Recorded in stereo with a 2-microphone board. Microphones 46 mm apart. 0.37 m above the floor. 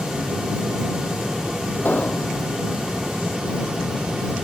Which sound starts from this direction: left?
An explosion, at 1.9 s.